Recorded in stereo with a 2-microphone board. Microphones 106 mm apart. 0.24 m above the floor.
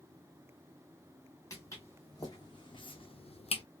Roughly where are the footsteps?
Left.